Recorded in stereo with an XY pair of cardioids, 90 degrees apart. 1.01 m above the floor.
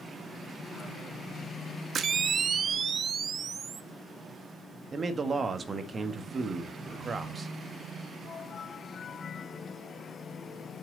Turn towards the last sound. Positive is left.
turn(degrees=-40)